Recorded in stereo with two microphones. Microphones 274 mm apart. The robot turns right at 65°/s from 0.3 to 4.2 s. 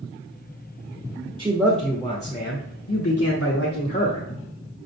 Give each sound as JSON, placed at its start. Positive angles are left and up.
{"t": 1.4, "sound": "a man speaking", "azimuth_deg": -25, "distance_m": 1.1}